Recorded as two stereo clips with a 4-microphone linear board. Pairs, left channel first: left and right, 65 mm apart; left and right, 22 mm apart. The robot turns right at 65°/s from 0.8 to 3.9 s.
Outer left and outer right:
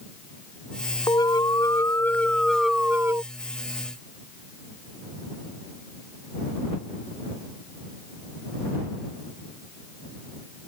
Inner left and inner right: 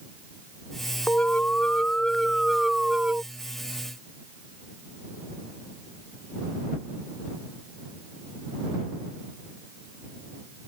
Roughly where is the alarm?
Left.